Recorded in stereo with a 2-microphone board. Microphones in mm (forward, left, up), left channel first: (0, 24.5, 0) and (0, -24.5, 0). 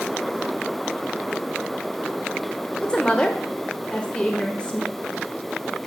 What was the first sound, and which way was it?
A woman speaking, 20° left (ahead or behind).